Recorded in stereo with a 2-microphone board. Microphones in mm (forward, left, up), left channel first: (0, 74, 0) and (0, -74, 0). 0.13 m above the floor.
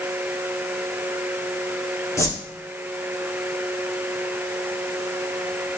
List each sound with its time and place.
2.2 s a whoosh: 20° left (ahead or behind), 2.5 m